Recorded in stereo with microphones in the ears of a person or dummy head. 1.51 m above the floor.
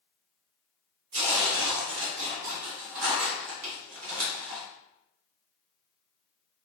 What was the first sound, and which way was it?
Tearing paper, 75° right (ahead or behind).